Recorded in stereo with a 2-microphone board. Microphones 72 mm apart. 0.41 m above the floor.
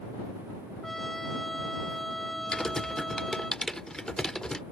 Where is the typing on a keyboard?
10° left (ahead or behind).